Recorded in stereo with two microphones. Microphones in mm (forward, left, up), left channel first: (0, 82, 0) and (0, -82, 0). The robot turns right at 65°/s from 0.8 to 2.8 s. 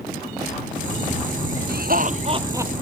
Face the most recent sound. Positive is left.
turn(degrees=-5)